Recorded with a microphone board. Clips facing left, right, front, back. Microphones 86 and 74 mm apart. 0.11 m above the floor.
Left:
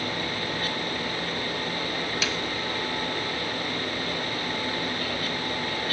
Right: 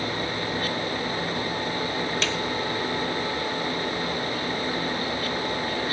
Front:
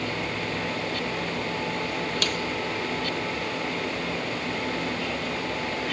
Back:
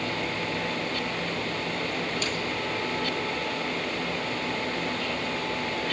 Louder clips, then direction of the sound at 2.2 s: Right 2 dB, front 2 dB; 5° left.